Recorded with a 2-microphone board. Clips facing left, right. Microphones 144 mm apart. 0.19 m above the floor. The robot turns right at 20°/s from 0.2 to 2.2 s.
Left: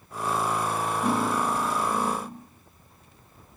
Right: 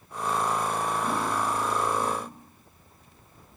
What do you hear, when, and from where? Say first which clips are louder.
1.0 s cutlery clinking: left 3 dB; 85° left, 9 m; by 2.5 s 65° left (ahead or behind), 9 m